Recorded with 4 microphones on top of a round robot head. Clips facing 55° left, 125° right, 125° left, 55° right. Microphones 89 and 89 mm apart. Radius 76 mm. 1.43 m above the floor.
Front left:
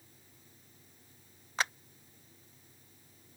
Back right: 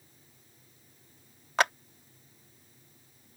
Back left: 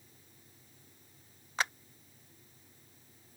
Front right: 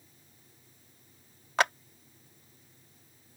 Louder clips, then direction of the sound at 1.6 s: Back right 8 dB, front right 8 dB; 90° right.